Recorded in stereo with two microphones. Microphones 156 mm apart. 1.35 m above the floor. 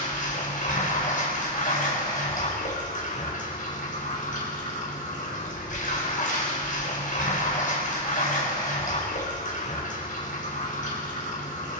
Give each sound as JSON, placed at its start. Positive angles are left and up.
{"t": 0.0, "sound": "running water", "side_deg": 60, "distance_m": 4.0}